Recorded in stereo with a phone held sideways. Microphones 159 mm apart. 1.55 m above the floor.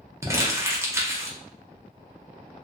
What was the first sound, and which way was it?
Crumpling, 15° right (ahead or behind).